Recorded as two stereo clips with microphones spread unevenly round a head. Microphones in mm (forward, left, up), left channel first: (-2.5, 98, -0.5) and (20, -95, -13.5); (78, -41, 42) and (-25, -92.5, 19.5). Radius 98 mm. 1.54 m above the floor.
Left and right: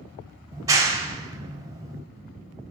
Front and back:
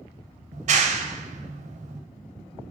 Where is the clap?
155° right, 0.7 m.